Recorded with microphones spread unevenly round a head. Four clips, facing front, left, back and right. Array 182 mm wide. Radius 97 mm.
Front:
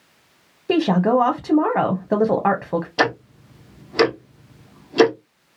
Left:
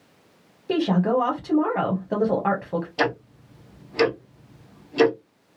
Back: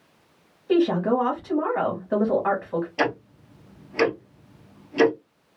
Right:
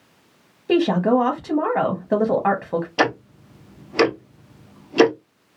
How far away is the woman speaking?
About 0.9 m.